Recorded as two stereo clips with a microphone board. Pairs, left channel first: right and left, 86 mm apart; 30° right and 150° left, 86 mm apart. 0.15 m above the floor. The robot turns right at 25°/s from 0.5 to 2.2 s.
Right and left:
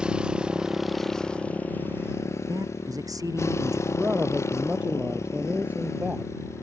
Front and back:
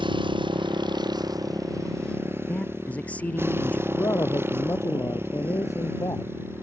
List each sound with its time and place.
0.0 s a motorcycle: 170° left; by 6.6 s 145° right
2.5 s a man speaking: 45° left
3.9 s a man speaking: 20° left